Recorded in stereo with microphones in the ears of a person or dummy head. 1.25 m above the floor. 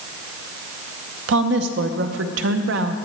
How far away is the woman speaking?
About 0.7 m.